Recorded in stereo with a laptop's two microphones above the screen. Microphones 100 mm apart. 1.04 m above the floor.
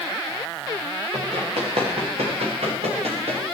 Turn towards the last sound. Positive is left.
turn(degrees=-85)